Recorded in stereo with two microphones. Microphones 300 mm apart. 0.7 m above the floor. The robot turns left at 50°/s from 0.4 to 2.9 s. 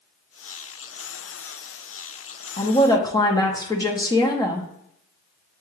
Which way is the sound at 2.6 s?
25° left (ahead or behind).